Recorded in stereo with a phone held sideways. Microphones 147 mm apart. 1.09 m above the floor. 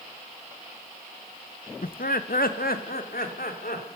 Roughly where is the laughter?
Left.